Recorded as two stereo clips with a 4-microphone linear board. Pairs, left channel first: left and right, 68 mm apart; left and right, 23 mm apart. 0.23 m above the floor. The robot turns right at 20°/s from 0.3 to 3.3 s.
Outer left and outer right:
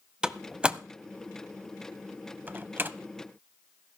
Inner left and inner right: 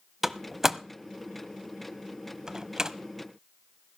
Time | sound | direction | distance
0.2 | a door slam | 10° right (ahead or behind) | 0.7 m